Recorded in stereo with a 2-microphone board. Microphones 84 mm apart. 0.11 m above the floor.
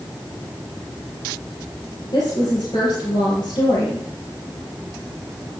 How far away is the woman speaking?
About 4 m.